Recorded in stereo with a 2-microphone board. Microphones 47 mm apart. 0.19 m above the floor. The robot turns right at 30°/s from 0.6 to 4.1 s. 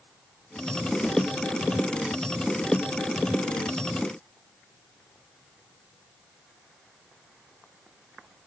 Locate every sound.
1.0 s a snare drum: 50° left (ahead or behind), 2 m